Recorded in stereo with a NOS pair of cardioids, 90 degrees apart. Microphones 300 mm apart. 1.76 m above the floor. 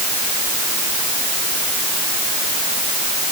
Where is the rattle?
No rattle in this recording.